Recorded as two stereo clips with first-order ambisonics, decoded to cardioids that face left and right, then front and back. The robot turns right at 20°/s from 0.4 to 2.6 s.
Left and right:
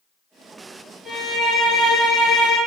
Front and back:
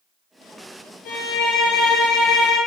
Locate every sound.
1.1 s a violin: straight ahead, 1.1 m; by 2.6 s 30° left, 1.1 m